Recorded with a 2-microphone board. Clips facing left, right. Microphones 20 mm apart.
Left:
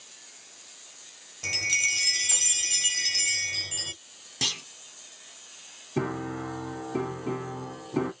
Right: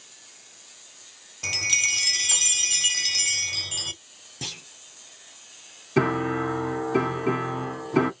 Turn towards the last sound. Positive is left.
turn(degrees=-70)  # may be behind; listen again after turning